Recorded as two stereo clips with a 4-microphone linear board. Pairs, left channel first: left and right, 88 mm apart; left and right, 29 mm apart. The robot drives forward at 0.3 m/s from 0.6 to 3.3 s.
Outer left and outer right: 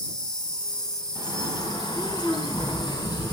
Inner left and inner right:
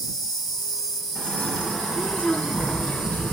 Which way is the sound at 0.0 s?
10° left (ahead or behind).